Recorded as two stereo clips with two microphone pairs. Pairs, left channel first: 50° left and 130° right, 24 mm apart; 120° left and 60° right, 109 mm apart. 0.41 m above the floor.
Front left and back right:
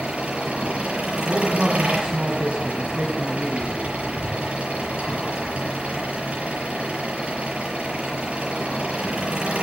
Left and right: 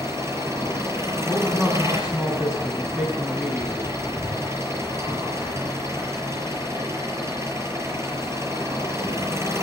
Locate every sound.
0.0 s an engine running: 120° right, 6.5 m
1.2 s a man speaking: 140° right, 4 m